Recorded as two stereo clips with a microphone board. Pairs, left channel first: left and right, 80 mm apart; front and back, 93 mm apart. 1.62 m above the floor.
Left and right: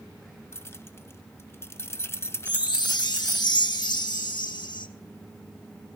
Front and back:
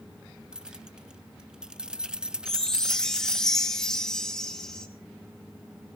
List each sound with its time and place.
0.5 s keys jangling: 105° left, 0.6 m
2.5 s a chime: 85° left, 1.2 m